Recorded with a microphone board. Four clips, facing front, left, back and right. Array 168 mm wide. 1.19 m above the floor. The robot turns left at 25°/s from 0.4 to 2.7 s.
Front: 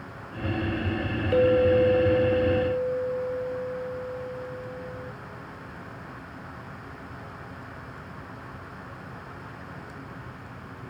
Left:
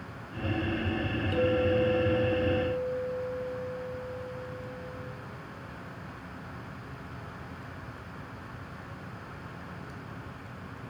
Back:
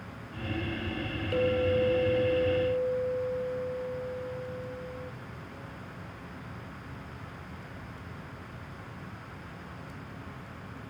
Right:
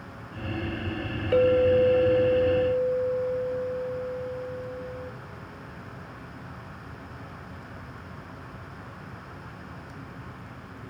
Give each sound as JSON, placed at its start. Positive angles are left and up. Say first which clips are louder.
{"t": 1.3, "sound": "a clink", "louder": "right 7 dB, front 7 dB", "azimuth_deg": -55, "distance_m": 0.8}